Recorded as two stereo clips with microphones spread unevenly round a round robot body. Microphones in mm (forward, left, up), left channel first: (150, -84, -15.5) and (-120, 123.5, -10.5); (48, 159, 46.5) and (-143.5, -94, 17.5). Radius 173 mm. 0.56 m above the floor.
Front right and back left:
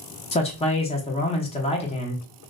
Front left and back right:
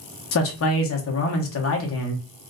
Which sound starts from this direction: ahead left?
A man speaking, at 0.3 s.